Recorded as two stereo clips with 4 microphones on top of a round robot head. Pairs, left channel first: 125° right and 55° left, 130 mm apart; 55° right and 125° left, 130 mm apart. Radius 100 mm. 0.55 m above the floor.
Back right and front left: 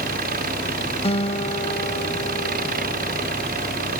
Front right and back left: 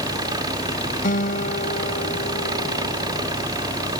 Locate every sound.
0.0 s an engine running: 60° left
1.0 s a guitar: 80° right